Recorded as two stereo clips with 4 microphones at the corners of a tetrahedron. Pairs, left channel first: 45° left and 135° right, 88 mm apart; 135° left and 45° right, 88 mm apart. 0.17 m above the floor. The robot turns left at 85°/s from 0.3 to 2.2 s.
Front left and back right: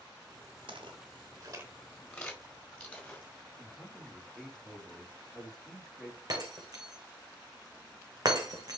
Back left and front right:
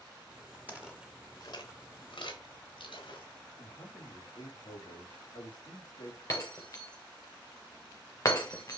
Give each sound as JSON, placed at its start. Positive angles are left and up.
{"t": 0.7, "sound": "footsteps", "azimuth_deg": -115, "distance_m": 2.5}
{"t": 3.6, "sound": "a man speaking", "azimuth_deg": 140, "distance_m": 4.0}
{"t": 6.3, "sound": "breaking glass", "azimuth_deg": -175, "distance_m": 2.0}